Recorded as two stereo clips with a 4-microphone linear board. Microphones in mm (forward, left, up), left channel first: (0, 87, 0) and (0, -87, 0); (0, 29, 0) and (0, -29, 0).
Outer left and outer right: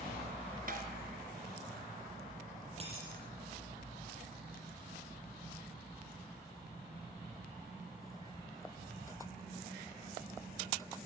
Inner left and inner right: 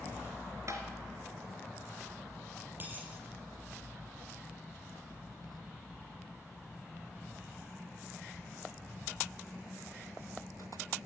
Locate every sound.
0.7 s tapping: 55° right (ahead or behind), 3 m
2.8 s a dropped coin: 35° right (ahead or behind), 7.5 m